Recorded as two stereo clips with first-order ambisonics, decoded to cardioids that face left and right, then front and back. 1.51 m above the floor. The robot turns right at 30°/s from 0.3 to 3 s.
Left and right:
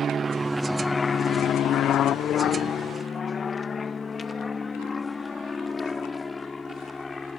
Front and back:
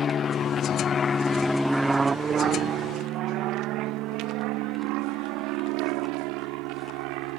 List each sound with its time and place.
0.0 s an aircraft: 45° right; by 7.4 s 170° left